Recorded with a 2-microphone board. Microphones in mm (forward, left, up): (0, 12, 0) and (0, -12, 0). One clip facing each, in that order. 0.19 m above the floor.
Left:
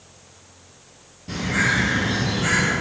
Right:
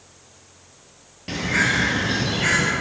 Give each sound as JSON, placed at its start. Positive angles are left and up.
{"t": 1.3, "sound": "a bird", "side_deg": -50, "distance_m": 0.6}